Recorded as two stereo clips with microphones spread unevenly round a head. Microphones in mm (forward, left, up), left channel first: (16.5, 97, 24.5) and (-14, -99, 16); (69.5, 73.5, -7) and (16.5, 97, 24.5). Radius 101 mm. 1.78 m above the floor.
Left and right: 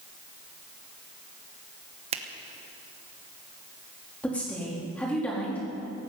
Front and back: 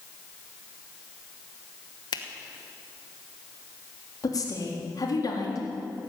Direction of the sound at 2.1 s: 45° right.